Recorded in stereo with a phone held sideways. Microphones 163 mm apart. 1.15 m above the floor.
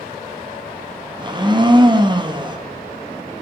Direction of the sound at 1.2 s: 25° right (ahead or behind).